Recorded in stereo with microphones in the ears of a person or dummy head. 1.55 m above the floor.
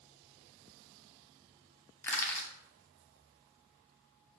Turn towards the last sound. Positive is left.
turn(degrees=15)  # may be behind; listen again after turning